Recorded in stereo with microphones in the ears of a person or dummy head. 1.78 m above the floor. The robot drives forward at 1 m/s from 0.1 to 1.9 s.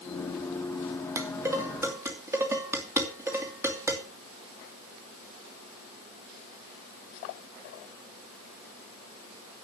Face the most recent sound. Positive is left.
turn(degrees=-15)  # may be behind; listen again after turning